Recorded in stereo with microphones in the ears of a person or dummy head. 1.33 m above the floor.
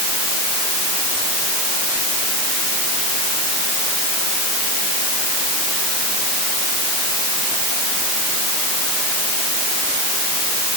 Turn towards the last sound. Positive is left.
No sound to turn to.